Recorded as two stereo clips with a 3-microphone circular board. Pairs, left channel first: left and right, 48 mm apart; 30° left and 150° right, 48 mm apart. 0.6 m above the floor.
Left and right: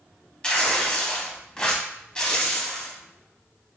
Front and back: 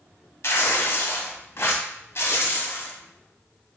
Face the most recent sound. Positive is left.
turn(degrees=20)